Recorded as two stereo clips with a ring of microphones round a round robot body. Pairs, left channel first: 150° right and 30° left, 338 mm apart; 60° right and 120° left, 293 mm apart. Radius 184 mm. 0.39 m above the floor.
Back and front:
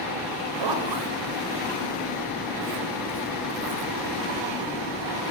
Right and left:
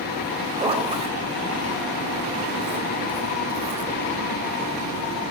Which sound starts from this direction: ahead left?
A zipper, at 0.6 s.